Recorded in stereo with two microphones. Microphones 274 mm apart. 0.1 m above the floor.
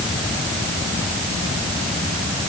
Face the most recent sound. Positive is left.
No sound to turn to.